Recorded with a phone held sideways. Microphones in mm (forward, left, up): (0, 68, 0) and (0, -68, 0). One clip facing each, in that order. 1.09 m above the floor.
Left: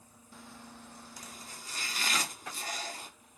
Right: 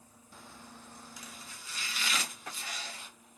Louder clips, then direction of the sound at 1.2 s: Left 1 dB; 40° left (ahead or behind).